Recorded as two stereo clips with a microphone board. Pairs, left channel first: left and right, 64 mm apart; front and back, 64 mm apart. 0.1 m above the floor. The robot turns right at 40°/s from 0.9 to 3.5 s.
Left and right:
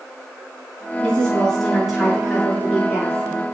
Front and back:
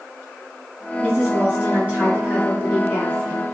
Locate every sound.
1.0 s a woman speaking: 150° left, 1.7 m; by 3.4 s 110° right, 1.7 m